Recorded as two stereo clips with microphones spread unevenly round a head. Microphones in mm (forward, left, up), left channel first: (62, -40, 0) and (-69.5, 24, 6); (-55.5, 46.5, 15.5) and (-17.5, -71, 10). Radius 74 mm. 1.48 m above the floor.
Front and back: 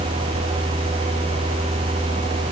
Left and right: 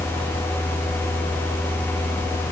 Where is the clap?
I don't hear a clap.